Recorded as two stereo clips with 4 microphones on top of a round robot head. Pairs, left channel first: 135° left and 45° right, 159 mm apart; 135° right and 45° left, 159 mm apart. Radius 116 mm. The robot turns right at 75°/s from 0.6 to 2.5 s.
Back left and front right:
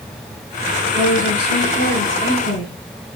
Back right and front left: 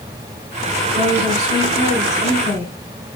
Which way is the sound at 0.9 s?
15° left.